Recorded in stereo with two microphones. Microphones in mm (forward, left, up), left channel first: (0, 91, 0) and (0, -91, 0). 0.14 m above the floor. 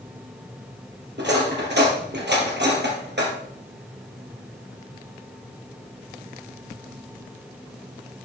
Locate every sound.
1.2 s cutlery clinking: 70° right (ahead or behind), 2.0 m